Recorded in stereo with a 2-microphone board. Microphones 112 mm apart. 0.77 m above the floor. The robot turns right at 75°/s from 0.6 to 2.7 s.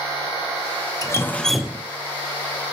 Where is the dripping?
140° left, 0.6 m; by 1.9 s 155° right, 0.6 m.